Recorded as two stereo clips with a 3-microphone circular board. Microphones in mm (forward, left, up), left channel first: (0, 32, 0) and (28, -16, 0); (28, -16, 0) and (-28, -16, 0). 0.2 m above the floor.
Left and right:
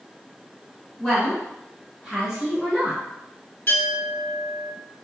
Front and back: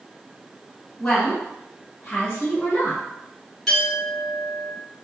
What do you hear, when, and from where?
1.0 s a woman speaking: 70° left, 1.6 m; by 3.0 s 20° left, 2 m
3.7 s a clink: 80° left, 1.7 m